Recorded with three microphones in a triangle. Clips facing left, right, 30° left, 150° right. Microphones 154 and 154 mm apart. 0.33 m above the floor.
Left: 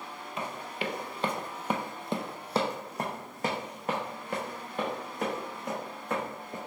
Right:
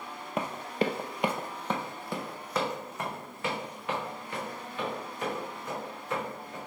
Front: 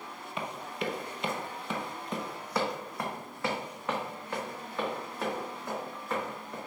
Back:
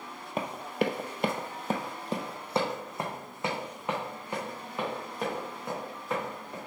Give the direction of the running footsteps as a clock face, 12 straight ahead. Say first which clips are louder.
Right 6 dB, back 6 dB; 4 o'clock.